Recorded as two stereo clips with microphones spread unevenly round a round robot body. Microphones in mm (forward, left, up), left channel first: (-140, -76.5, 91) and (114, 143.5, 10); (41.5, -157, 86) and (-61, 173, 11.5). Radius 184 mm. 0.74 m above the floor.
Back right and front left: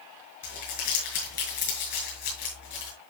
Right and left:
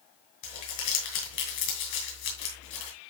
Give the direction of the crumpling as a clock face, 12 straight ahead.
3 o'clock.